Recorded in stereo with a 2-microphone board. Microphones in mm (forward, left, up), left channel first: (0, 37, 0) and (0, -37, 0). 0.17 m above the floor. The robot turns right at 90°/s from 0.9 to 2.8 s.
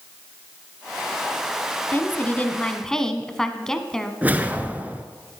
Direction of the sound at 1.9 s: 25° left (ahead or behind).